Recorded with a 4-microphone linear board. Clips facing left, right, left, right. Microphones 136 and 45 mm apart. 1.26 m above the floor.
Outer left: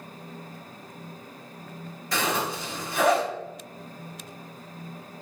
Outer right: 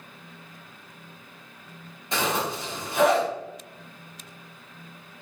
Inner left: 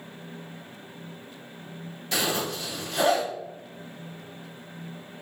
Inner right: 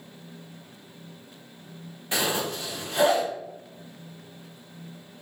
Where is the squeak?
No squeak in this recording.